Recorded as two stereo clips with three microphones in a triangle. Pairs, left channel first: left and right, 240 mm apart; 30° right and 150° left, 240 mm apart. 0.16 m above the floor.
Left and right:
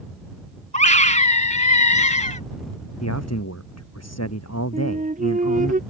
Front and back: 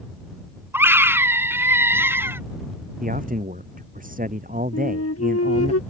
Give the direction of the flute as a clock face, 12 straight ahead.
1 o'clock.